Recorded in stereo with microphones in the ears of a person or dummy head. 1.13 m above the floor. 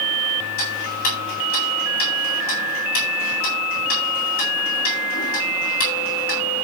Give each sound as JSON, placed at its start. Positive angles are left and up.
{"t": 0.6, "sound": "ticking", "side_deg": 45, "distance_m": 8.5}